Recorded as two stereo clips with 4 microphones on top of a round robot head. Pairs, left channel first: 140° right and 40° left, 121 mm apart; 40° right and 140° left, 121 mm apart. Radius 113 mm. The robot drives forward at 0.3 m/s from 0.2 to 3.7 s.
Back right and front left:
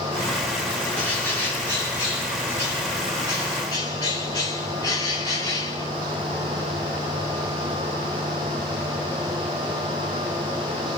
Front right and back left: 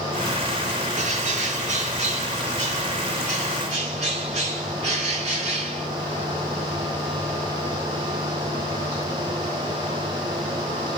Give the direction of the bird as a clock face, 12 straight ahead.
7 o'clock.